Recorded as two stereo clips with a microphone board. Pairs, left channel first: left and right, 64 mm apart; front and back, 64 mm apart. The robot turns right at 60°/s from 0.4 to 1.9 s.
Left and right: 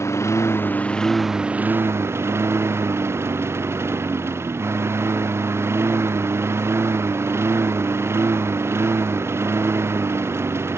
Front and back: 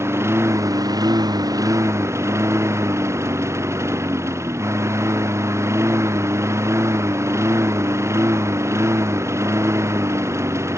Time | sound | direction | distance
0.0 | a lawn mower | 130° left | ?